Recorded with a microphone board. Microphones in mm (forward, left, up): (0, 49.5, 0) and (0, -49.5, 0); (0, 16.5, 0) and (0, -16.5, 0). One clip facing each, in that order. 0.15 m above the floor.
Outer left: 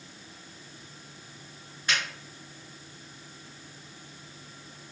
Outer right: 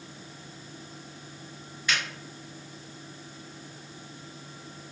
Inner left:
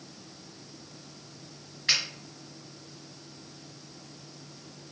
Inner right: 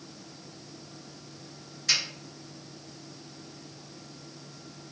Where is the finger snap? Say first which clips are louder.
Even, inner left 1 dB; 40° left (ahead or behind), 1.8 m.